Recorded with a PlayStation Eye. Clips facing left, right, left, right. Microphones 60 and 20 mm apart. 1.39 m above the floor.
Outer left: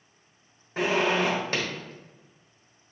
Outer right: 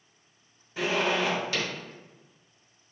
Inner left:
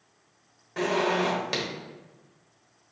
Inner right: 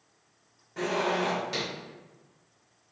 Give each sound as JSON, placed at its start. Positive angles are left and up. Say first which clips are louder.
{"t": 0.8, "sound": "a zipper", "louder": "outer left 3 dB, inner left 3 dB", "side_deg": 45, "distance_m": 1.3}